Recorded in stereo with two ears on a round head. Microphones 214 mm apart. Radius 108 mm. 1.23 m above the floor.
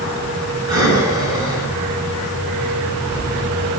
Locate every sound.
0.7 s breathing: 20° right (ahead or behind), 6.5 m